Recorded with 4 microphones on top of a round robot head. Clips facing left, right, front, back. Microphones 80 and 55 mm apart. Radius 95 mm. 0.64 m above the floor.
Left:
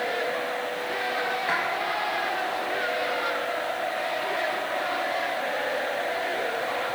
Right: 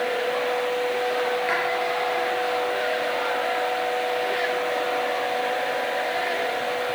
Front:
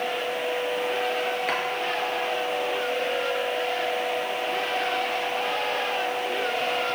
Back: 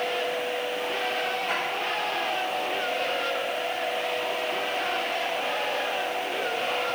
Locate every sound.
1.5 s a drawer: 20° left, 3 m